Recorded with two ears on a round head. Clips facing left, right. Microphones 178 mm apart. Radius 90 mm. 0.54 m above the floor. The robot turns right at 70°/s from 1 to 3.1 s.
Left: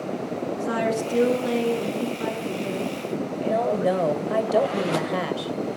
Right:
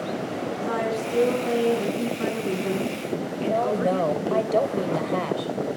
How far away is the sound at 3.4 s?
About 2.5 m.